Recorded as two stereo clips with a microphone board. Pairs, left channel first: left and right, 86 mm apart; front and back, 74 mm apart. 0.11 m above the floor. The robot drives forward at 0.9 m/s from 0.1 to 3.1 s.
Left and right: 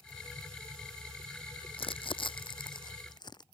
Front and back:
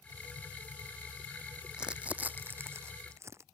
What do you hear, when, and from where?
1.7 s crumpling: 100° left; by 3.5 s 130° left